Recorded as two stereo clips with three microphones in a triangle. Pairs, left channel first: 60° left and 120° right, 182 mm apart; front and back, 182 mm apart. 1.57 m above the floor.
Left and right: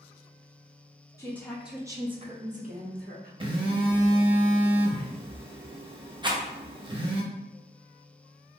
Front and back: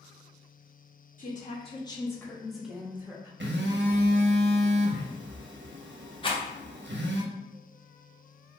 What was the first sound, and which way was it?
A woman speaking, 10° right.